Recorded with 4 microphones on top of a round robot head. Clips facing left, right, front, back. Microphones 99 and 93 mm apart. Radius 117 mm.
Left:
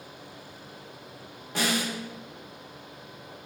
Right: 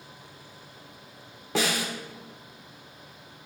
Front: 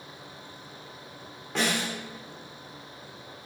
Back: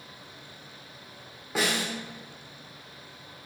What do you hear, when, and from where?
1.6 s a snare drum: 95° right, 1.4 m